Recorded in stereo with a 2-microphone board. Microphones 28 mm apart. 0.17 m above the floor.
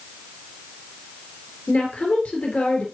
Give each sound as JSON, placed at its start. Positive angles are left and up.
{"t": 1.7, "sound": "a woman speaking", "side_deg": 60, "distance_m": 4.0}